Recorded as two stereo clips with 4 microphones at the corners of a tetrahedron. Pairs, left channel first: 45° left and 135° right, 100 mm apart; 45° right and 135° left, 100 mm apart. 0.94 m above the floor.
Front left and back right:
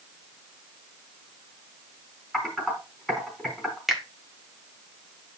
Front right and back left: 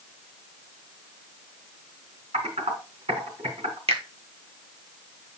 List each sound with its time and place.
2.3 s typing on a keyboard: 135° left, 4.5 m
3.9 s a finger snap: 140° left, 1.4 m